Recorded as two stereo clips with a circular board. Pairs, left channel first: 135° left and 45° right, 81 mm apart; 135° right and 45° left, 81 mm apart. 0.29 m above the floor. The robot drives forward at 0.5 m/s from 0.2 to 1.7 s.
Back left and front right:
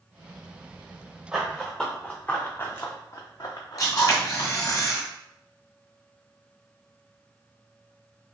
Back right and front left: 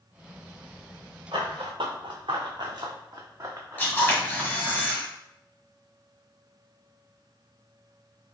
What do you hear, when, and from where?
1.3 s running footsteps: 35° left, 1.7 m; by 4.8 s 125° left, 1.7 m
3.8 s a camera shutter: 165° left, 1.4 m